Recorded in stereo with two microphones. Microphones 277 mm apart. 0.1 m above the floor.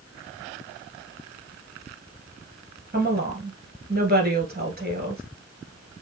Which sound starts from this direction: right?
A woman speaking, at 2.9 s.